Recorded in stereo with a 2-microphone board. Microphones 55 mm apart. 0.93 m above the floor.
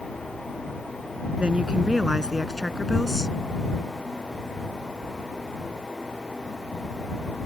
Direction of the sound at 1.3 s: 20° right (ahead or behind).